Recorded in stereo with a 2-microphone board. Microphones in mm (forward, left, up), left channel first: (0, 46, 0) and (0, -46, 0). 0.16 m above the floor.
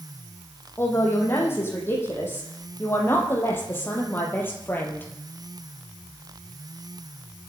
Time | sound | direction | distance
0.8 | a man speaking | 30° left (ahead or behind) | 8.5 m